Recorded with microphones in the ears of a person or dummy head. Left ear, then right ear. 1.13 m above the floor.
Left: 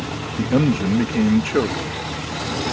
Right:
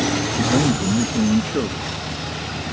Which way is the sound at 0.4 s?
65° left (ahead or behind).